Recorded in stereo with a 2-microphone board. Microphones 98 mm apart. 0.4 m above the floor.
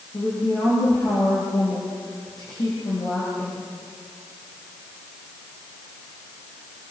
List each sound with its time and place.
0.1 s a woman speaking: 45° left (ahead or behind), 8.5 m